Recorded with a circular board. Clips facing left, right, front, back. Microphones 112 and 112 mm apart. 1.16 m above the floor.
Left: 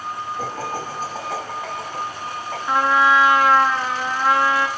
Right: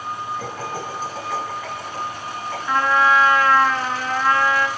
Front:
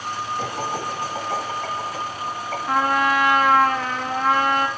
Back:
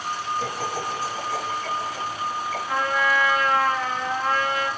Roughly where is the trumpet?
Ahead.